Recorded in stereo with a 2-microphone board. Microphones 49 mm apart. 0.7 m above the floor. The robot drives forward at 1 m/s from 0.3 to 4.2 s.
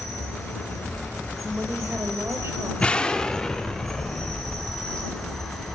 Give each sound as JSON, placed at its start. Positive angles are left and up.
{"t": 0.0, "sound": "an insect", "side_deg": 0, "distance_m": 7.5}
{"t": 1.4, "sound": "a woman speaking", "side_deg": -45, "distance_m": 3.0}
{"t": 2.8, "sound": "an explosion", "side_deg": 25, "distance_m": 0.8}